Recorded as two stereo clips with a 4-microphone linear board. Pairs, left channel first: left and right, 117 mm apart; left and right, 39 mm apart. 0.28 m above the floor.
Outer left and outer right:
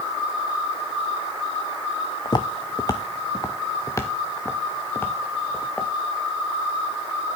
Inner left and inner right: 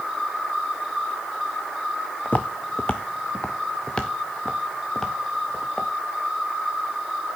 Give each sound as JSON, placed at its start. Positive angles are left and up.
{"t": 2.2, "sound": "footsteps", "side_deg": 40, "distance_m": 0.9}